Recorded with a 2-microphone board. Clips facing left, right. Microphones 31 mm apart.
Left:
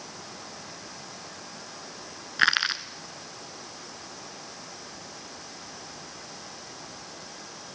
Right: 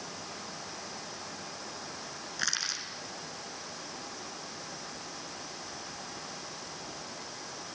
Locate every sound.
2.4 s crushing: 50° left (ahead or behind), 1.2 m